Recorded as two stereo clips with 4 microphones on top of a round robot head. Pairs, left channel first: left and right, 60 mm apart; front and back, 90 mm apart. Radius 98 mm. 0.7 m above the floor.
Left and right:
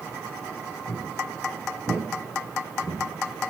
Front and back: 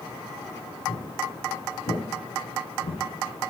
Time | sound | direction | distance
0.9 | footsteps | 20° left | 5 m